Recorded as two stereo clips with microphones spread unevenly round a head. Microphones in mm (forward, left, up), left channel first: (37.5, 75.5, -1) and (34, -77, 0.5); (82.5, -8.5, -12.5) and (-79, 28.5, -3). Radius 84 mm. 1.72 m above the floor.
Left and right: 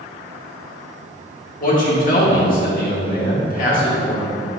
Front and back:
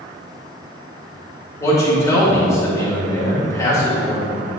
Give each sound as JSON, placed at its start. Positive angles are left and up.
{"t": 1.6, "sound": "a man speaking", "azimuth_deg": 60, "distance_m": 2.5}